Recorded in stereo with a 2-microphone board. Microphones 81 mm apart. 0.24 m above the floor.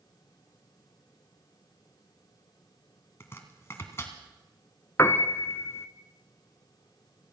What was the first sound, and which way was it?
Chopping, 35° left (ahead or behind).